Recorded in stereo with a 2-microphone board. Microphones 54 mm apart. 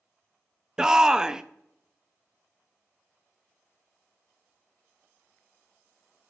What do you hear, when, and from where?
0.8 s a shout: 10° right (ahead or behind), 0.7 m